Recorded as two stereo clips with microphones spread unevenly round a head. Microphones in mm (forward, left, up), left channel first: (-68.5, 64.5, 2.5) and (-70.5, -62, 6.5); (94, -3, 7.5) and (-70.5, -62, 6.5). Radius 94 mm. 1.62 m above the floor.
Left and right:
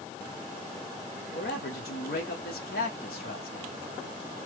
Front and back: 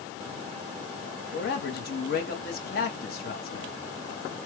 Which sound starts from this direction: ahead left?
A man speaking, at 1.3 s.